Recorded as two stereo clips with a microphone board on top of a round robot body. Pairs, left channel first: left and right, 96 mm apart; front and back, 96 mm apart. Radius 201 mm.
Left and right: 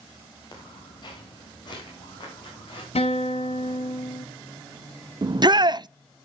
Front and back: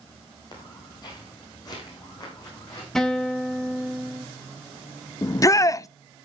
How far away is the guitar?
About 1.3 m.